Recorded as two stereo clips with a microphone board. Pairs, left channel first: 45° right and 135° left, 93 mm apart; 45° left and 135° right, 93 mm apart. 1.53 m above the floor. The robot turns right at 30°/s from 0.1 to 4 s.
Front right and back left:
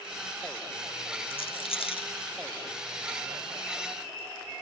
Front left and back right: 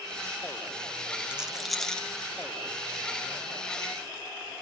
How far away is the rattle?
About 1.0 m.